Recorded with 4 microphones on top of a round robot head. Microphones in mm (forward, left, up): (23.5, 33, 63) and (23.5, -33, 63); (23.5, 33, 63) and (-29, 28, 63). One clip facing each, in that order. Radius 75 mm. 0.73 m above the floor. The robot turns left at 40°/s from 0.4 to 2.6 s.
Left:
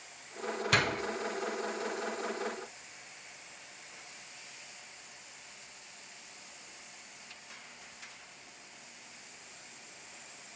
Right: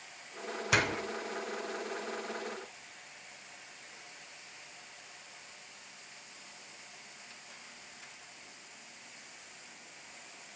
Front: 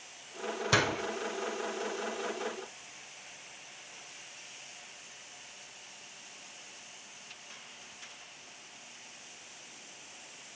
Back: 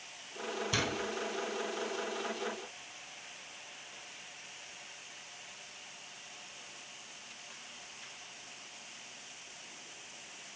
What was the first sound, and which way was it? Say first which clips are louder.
A door slam: even, front 7 dB; 10° right.